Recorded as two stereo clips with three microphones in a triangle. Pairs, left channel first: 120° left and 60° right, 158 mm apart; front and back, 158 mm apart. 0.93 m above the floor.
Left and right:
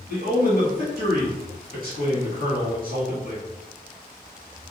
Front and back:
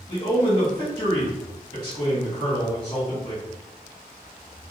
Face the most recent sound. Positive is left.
turn(degrees=-60)